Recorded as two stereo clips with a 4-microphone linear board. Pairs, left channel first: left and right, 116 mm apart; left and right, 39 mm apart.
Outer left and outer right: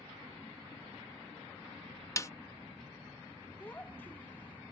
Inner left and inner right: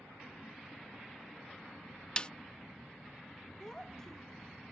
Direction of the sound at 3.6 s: 15° left (ahead or behind).